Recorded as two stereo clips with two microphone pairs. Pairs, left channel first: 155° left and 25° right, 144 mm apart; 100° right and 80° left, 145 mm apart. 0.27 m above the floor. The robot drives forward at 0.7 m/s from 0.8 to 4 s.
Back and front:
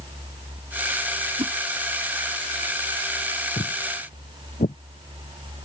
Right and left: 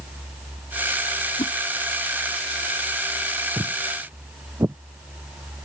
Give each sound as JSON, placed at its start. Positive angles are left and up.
{"t": 1.4, "sound": "a whoosh", "azimuth_deg": -60}
{"t": 3.6, "sound": "footsteps", "azimuth_deg": 140}